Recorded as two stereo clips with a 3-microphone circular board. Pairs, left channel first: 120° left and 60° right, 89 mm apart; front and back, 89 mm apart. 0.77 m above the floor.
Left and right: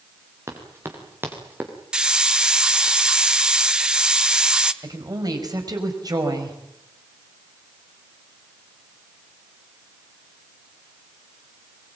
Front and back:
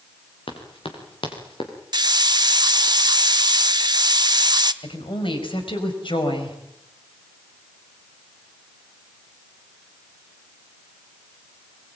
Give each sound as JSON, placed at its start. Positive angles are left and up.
{"t": 0.5, "sound": "running footsteps", "azimuth_deg": 0, "distance_m": 6.0}
{"t": 1.9, "sound": "a hiss", "azimuth_deg": -140, "distance_m": 1.0}
{"t": 4.8, "sound": "a woman speaking", "azimuth_deg": -15, "distance_m": 5.0}